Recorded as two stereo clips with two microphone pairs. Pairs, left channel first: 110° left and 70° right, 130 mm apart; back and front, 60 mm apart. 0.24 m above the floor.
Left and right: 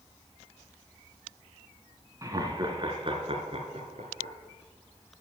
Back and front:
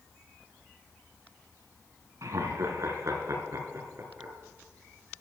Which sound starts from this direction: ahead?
Laughter, at 2.2 s.